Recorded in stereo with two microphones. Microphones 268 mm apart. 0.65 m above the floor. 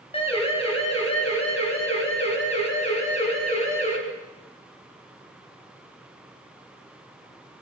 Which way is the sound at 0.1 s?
20° left (ahead or behind).